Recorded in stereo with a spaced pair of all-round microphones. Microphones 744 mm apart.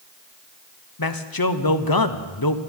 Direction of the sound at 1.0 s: 30° left (ahead or behind).